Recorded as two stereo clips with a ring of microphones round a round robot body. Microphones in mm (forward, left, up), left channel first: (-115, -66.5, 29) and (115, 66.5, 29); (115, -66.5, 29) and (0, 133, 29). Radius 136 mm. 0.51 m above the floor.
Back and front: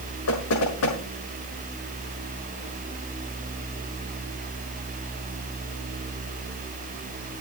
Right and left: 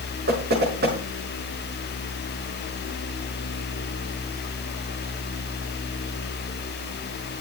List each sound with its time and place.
0.3 s knocking: 175° left, 6 m